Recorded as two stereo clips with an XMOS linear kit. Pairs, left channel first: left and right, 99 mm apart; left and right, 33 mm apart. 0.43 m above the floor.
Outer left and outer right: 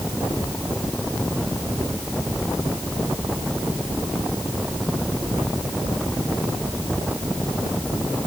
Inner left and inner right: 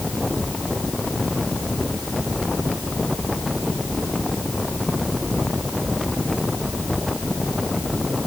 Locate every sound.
Only background noise.